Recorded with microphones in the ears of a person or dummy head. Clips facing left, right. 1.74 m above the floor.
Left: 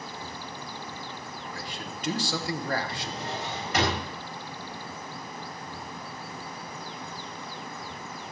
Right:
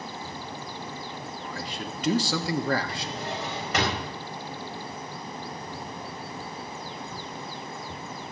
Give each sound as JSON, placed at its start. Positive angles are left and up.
{"t": 1.4, "sound": "a man speaking", "side_deg": -60, "distance_m": 1.4}
{"t": 2.9, "sound": "a drawer", "side_deg": -50, "distance_m": 5.0}